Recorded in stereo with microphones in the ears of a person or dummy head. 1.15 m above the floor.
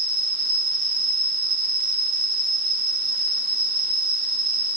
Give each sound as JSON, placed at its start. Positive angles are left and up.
{"t": 0.0, "sound": "an insect", "side_deg": -75, "distance_m": 1.8}